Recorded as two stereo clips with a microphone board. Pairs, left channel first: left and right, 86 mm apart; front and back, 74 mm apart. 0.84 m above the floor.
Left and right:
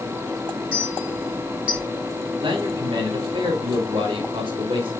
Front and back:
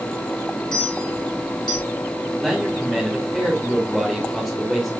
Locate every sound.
0.7 s a clink: 15° right, 5.5 m
2.4 s a man speaking: 95° right, 2.5 m